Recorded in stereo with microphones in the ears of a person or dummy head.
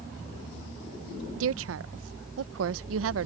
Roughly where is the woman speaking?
Right.